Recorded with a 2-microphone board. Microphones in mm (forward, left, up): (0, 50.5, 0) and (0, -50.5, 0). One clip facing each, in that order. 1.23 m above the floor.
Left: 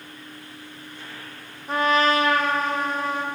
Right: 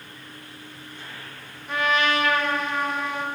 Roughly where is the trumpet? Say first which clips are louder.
Left 3 dB; left.